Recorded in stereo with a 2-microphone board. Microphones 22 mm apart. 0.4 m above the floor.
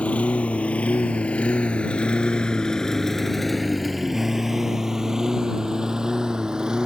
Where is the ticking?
No ticking in this recording.